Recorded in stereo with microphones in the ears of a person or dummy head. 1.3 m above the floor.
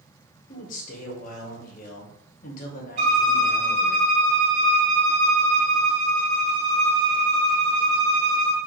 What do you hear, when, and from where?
0.5 s a man speaking: 50° left (ahead or behind), 1.1 m
3.0 s a violin: 40° right (ahead or behind), 2.5 m